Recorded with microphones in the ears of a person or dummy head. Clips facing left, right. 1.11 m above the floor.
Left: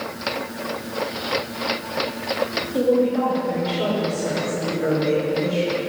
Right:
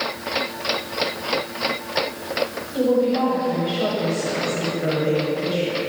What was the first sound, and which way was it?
A woman speaking, 30° left (ahead or behind).